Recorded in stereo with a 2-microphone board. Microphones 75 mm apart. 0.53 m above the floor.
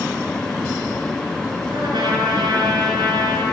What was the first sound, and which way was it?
A trumpet, 65° right (ahead or behind).